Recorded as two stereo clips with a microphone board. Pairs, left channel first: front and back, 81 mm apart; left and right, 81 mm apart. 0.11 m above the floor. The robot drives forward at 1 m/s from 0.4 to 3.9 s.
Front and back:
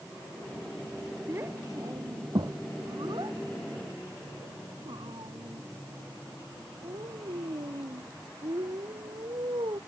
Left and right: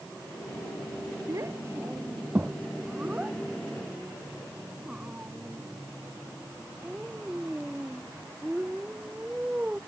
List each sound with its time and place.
1.3 s a child speaking: 125° right; by 9.8 s 165° right